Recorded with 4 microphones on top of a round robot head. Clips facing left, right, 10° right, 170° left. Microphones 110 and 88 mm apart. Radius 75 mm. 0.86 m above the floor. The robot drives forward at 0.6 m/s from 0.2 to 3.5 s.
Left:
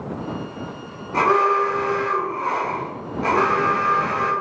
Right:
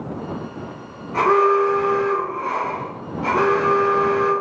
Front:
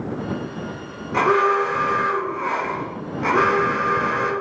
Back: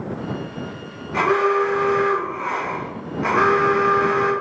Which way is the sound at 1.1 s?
40° left.